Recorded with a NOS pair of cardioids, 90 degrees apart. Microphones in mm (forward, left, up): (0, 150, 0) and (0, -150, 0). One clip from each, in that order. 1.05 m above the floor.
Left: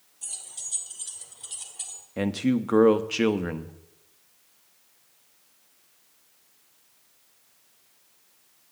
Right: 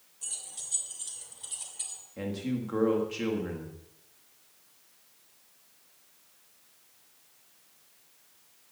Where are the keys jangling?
5° left, 3.5 m; by 2.0 s 20° left, 2.5 m.